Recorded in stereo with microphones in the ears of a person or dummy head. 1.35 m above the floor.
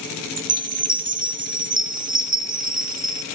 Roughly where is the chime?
Right.